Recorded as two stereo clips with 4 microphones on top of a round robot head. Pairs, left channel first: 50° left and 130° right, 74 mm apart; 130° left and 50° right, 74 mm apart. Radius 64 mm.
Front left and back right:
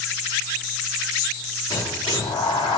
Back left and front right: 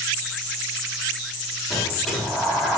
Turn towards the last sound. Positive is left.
turn(degrees=40)